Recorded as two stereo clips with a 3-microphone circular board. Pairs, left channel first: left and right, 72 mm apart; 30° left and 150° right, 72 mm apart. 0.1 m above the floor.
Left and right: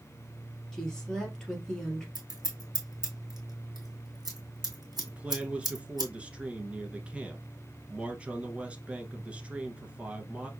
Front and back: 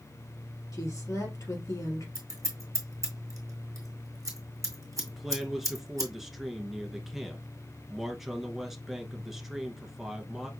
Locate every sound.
0.7 s a woman speaking: 10° left, 2.5 m
2.1 s scissors: 110° right, 1.7 m
5.0 s a man speaking: 80° right, 1.1 m